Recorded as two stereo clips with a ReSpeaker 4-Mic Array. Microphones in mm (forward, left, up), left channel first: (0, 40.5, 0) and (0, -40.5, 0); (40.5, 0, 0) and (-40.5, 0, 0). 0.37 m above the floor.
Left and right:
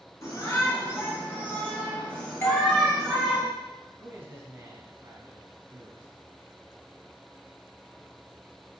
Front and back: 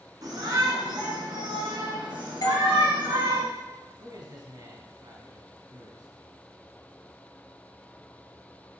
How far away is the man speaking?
About 3 m.